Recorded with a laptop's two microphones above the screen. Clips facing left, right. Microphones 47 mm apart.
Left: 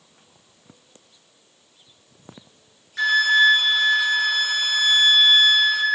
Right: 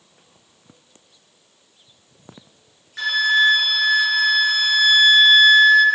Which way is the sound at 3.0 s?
Centre (ahead or behind).